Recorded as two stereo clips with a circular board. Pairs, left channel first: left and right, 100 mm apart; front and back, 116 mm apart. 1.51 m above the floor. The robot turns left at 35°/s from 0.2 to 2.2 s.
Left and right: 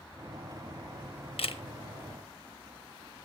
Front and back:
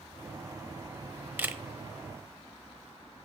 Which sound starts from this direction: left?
A camera shutter, at 1.4 s.